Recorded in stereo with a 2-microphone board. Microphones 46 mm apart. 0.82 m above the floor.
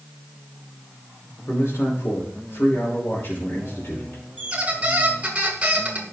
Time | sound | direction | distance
1.5 | a man speaking | 65° left (ahead or behind) | 3 m
4.4 | a squeak | 30° right (ahead or behind) | 1.8 m